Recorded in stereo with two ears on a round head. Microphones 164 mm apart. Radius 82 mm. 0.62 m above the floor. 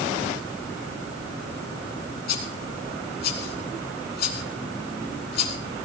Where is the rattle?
55° left (ahead or behind), 4 m.